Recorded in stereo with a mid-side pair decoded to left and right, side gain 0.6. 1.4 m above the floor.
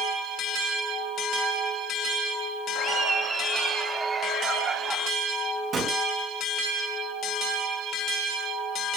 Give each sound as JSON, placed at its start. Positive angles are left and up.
{"t": 2.8, "sound": "laughter", "azimuth_deg": -30, "distance_m": 3.5}
{"t": 5.7, "sound": "a gunshot", "azimuth_deg": -40, "distance_m": 4.5}